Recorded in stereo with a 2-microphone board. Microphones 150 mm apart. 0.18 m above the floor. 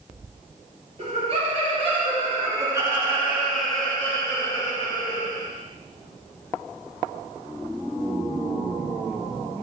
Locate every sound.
1.0 s laughter: 45° right (ahead or behind), 3.5 m; by 5.5 s 45° left (ahead or behind), 2 m